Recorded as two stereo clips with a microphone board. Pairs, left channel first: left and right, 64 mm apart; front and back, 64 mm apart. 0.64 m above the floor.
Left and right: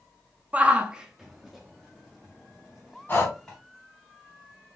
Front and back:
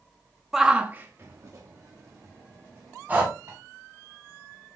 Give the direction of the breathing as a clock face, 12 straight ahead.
8 o'clock.